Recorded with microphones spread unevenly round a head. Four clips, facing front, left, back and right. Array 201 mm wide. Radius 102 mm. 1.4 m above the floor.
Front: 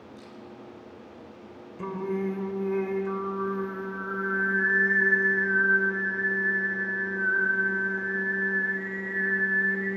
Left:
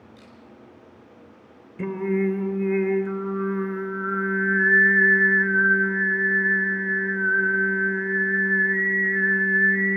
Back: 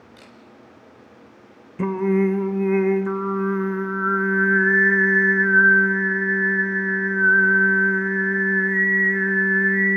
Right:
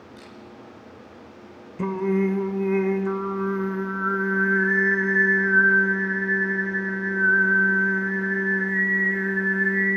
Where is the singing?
170° right, 1.4 m.